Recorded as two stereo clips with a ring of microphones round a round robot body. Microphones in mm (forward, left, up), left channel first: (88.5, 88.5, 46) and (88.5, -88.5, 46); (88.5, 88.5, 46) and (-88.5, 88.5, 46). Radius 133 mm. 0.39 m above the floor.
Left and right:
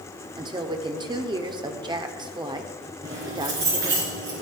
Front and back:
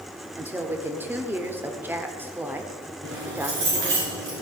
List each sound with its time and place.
0.4 s a woman speaking: 115° right, 0.9 m
3.0 s keys jangling: 140° right, 3.5 m